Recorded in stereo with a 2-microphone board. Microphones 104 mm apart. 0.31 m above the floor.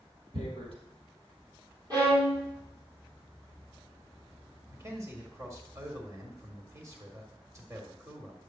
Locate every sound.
0.3 s tearing paper: 65° right (ahead or behind), 3.5 m
1.9 s a violin: 45° right (ahead or behind), 3 m
4.7 s a man speaking: 30° right (ahead or behind), 1.6 m